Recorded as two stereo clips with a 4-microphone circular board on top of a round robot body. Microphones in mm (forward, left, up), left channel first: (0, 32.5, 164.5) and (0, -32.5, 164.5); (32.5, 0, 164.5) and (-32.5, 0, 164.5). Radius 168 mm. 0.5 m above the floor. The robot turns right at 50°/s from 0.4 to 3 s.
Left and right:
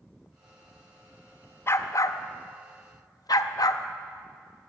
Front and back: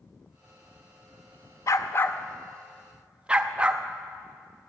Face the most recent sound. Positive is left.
turn(degrees=105)